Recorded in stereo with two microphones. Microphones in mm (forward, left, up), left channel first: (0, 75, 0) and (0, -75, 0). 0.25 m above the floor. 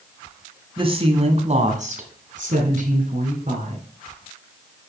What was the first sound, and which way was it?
A woman speaking, 35° right (ahead or behind).